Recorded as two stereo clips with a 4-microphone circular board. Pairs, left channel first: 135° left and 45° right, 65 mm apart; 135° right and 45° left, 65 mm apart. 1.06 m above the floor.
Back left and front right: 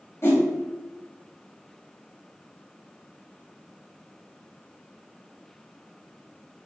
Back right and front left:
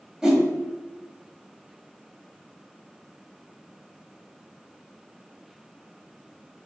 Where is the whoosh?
120° left, 1.1 m.